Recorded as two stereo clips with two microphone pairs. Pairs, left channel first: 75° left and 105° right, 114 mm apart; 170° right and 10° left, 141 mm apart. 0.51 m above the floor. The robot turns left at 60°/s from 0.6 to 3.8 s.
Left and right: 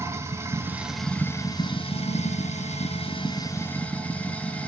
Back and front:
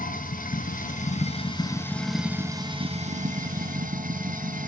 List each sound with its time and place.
0.0 s running water: 170° right, 1.3 m; by 4.7 s straight ahead, 1.3 m